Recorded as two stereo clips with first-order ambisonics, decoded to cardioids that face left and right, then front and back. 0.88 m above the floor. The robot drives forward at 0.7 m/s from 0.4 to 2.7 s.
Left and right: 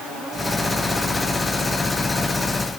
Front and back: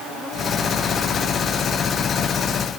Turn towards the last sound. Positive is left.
No sound to turn to.